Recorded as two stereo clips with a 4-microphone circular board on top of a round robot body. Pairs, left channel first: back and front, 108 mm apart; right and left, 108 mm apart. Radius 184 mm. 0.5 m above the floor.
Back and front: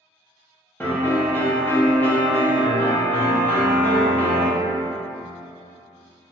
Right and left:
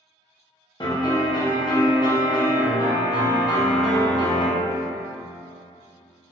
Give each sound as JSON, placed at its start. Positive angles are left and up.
{"t": 0.8, "sound": "a piano", "azimuth_deg": -115, "distance_m": 0.9}